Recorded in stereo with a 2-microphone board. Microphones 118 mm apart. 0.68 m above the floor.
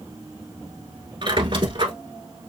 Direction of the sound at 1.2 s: 45° right (ahead or behind).